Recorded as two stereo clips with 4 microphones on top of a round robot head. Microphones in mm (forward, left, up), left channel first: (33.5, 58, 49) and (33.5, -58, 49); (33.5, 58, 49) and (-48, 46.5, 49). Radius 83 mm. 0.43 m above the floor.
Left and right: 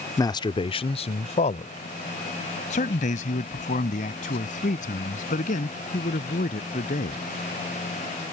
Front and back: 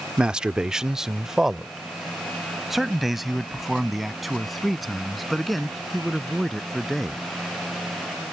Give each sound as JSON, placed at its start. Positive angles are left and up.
{"t": 0.2, "sound": "a man speaking", "azimuth_deg": 115}